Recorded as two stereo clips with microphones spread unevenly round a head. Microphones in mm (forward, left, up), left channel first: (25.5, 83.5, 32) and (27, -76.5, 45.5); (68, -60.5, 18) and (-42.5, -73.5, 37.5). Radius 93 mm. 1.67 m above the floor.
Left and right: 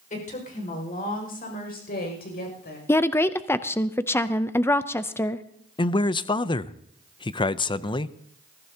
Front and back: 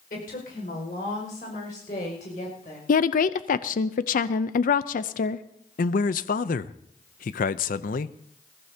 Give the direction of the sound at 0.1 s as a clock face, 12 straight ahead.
11 o'clock.